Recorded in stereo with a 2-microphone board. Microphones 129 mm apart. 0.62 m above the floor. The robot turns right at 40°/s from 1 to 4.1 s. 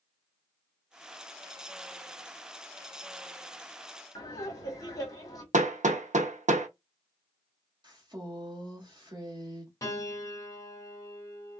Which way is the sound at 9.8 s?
25° left (ahead or behind).